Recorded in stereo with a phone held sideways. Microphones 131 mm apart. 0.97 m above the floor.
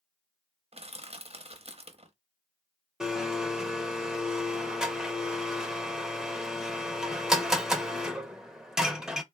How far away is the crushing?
About 0.7 m.